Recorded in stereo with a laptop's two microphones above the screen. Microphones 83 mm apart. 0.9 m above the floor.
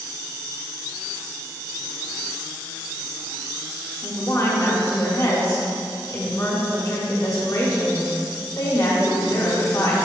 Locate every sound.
4.0 s a woman speaking: 45° left (ahead or behind), 1.3 m